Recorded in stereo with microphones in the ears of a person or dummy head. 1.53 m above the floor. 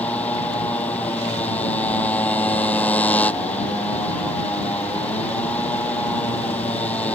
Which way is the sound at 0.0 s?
5° left (ahead or behind).